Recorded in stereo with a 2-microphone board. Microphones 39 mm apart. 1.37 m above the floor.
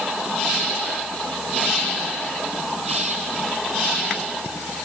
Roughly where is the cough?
No cough in this recording.